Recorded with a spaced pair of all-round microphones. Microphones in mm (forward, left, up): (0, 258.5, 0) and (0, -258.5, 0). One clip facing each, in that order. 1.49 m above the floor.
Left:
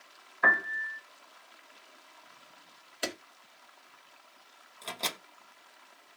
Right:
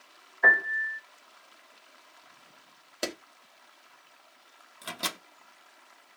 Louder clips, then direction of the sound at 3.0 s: Right 3 dB; 65° right (ahead or behind).